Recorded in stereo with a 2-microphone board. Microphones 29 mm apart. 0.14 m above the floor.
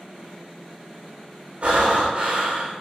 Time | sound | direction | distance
1.6 | breathing | 50° right (ahead or behind) | 2.0 m